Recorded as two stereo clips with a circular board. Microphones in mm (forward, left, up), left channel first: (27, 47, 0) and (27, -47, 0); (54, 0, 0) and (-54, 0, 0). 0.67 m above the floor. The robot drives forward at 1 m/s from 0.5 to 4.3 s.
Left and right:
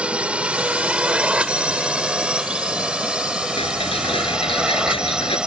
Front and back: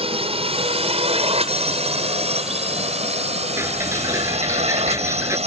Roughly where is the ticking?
Left.